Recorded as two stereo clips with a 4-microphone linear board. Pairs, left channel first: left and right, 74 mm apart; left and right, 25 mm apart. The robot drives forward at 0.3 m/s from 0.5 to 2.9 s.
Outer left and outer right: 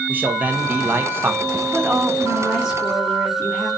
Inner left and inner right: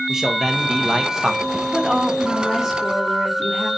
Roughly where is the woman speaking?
Centre.